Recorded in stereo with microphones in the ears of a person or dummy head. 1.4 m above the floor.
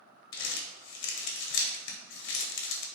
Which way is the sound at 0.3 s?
65° left (ahead or behind).